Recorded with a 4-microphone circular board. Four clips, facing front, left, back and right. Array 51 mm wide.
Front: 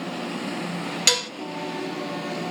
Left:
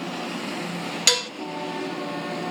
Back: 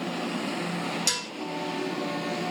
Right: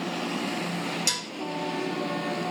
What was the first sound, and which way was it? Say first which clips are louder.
Dishes clattering: left 8 dB, front 8 dB; 45° left.